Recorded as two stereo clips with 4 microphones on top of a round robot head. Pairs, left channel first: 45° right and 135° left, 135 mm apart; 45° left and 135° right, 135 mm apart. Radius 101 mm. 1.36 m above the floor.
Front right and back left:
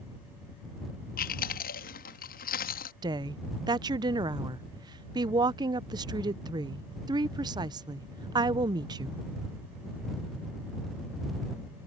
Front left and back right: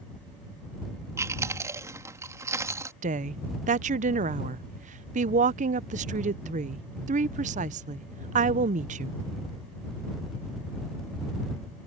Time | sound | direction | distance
1.2 | chewing | 65° right | ?
3.0 | a woman speaking | 165° right | ?